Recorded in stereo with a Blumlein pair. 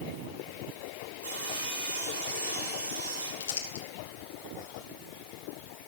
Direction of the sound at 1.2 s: 70° right.